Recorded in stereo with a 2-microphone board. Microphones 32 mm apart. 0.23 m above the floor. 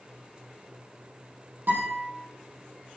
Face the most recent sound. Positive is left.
turn(degrees=-80)